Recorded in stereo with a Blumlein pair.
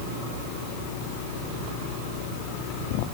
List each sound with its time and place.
Only background noise.